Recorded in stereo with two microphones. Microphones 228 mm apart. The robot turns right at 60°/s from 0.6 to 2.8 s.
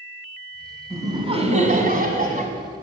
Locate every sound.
0.9 s laughter: 160° right, 1.3 m; by 2.5 s 65° right, 1.3 m